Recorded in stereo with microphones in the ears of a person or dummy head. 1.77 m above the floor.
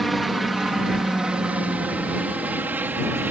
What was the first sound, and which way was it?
A helicopter, centre (ahead or behind).